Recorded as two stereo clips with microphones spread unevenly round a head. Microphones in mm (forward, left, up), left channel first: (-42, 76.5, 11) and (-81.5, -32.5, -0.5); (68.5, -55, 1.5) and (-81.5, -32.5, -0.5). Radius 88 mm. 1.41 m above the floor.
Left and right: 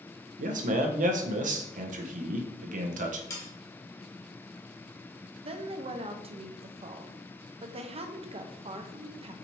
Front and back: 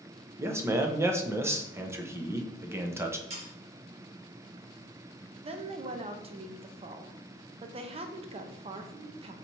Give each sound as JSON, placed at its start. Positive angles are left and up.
{"t": 0.4, "sound": "a man speaking", "azimuth_deg": -115, "distance_m": 0.7}
{"t": 3.3, "sound": "sawing", "azimuth_deg": 125, "distance_m": 1.8}
{"t": 5.4, "sound": "a woman speaking", "azimuth_deg": -140, "distance_m": 0.7}